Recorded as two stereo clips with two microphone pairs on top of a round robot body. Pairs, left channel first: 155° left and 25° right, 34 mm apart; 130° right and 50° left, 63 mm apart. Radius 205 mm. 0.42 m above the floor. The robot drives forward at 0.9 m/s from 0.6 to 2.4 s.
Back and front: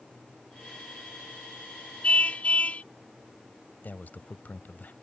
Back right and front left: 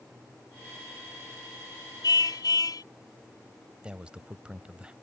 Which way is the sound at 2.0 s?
155° right.